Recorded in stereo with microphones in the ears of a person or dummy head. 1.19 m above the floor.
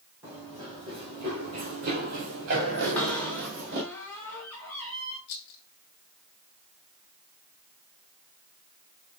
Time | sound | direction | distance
0.2 | running footsteps | 10° right (ahead or behind) | 1.9 m
2.8 | a cupboard door | 15° left (ahead or behind) | 3 m
5.3 | a rattle | 50° left (ahead or behind) | 1.2 m